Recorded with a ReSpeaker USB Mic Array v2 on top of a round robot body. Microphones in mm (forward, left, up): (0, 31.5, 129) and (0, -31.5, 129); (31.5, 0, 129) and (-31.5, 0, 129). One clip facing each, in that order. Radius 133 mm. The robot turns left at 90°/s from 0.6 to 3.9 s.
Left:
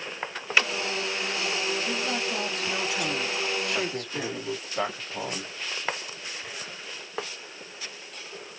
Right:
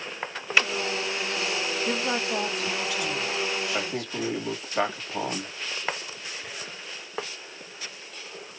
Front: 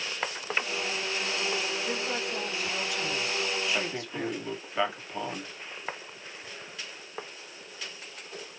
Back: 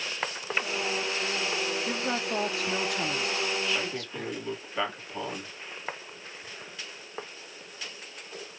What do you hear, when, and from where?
1.9 s a woman speaking: 115° right, 0.9 m; by 4.5 s 65° left, 0.9 m
3.7 s a man speaking: 65° right, 1.5 m; by 5.5 s 80° right, 1.5 m